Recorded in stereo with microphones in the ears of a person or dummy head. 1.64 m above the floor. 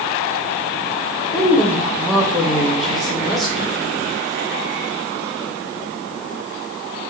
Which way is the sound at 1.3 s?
5° left (ahead or behind).